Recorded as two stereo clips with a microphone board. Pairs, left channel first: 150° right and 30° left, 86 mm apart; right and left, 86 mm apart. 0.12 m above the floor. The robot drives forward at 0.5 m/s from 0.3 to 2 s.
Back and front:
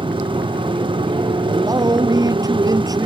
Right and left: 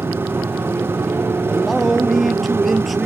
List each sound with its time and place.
0.0 s a motorcycle: 25° left
1.5 s a man speaking: straight ahead